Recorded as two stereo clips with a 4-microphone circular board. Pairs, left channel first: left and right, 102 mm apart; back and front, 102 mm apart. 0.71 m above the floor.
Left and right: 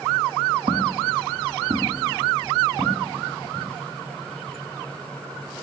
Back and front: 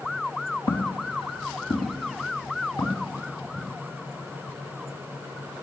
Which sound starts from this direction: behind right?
Footsteps, at 0.7 s.